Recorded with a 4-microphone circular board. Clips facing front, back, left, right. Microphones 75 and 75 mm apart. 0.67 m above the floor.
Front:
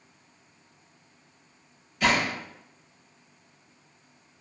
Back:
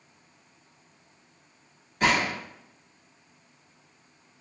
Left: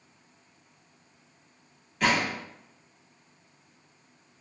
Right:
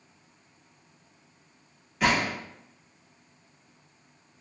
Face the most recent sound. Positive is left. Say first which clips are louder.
# even, right 1 dB
turn(degrees=-175)